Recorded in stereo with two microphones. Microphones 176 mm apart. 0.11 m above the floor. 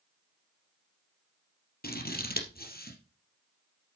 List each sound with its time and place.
1.8 s scissors: 60° left (ahead or behind), 3.5 m